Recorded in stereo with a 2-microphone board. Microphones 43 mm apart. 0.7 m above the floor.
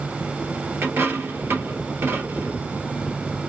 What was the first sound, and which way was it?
A dropped coin, 75° right (ahead or behind).